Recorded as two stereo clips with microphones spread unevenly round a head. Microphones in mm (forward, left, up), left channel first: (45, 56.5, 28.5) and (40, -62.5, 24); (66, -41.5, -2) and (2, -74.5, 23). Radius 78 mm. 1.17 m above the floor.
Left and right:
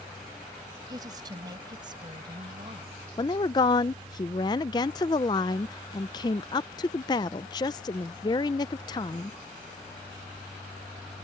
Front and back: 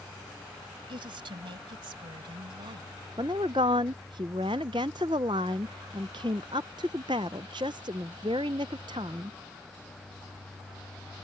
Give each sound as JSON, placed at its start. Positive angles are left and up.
{"t": 0.9, "sound": "a woman speaking", "azimuth_deg": -160}
{"t": 3.2, "sound": "a woman speaking", "azimuth_deg": 150}